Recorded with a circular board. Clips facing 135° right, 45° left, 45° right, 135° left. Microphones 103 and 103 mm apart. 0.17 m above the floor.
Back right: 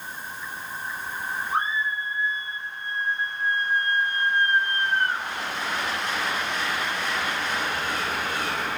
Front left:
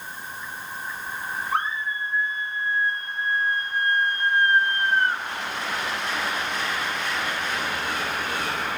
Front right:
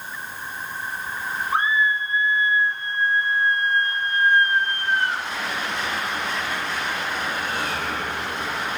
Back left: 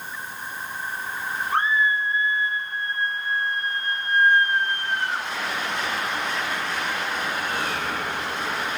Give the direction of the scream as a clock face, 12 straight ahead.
11 o'clock.